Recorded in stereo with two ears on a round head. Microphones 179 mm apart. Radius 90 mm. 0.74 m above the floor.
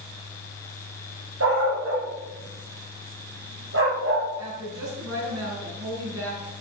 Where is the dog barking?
85° right, 9 m; by 4.3 s 75° right (ahead or behind), 7 m.